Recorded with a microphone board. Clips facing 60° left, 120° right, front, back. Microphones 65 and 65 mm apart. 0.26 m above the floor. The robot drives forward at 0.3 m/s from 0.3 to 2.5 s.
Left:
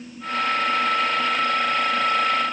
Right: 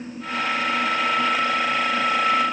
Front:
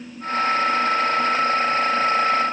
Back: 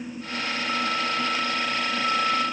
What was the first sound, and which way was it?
Only background noise.